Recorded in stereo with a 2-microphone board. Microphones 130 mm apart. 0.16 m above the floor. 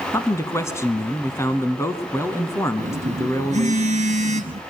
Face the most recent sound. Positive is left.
turn(degrees=-60)  # may be behind; listen again after turning